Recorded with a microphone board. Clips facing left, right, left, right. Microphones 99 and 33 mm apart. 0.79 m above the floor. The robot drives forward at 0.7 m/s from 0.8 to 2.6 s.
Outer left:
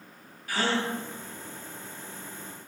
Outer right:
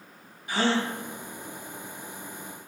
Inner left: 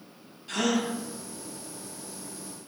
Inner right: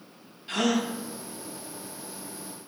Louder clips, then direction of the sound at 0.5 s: Outer right 3 dB, inner right 1 dB; 20° right (ahead or behind).